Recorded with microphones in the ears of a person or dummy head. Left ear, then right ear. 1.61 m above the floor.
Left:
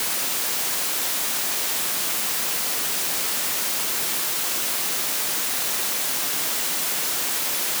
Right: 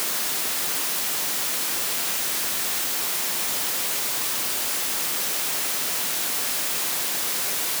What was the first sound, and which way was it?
Only background noise.